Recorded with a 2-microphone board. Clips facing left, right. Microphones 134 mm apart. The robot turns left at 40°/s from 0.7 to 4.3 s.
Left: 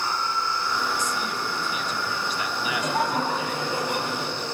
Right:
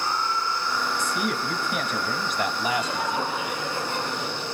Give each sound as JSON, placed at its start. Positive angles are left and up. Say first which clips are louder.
{"t": 1.0, "sound": "a man speaking", "louder": "right 2 dB", "azimuth_deg": -70, "distance_m": 3.5}
{"t": 2.6, "sound": "laughter", "louder": "left 1 dB", "azimuth_deg": 65, "distance_m": 10.0}